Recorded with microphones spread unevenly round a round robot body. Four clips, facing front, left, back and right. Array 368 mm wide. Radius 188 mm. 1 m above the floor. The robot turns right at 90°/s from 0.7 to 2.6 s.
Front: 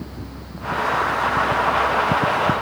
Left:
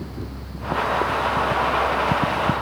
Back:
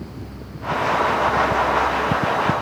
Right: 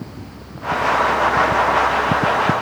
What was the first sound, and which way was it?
Only background noise.